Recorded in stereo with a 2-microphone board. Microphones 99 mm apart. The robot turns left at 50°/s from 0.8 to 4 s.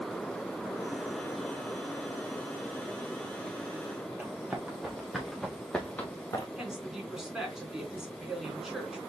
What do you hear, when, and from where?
4.2 s running footsteps: 15° right (ahead or behind), 2.5 m; by 6.5 s 30° left (ahead or behind), 1.5 m
6.6 s a woman speaking: 5° right (ahead or behind), 3 m